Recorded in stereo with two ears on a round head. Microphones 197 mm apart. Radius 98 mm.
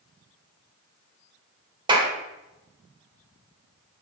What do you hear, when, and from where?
1.9 s a clap: 20° right (ahead or behind), 1.4 m